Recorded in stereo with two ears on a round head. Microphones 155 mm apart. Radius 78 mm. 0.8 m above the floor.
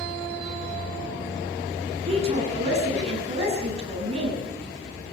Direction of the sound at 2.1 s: 35° right (ahead or behind).